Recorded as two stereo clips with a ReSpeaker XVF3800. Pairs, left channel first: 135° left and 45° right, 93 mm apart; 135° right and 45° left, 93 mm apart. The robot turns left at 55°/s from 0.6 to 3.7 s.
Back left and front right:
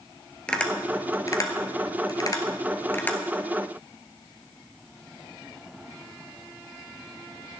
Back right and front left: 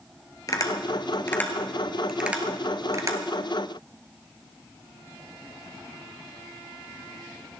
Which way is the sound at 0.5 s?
150° right.